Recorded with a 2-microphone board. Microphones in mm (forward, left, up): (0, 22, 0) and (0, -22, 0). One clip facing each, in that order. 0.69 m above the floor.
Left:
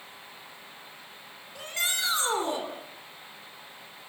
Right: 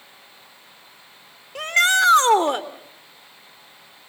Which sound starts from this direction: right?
A shout, at 1.6 s.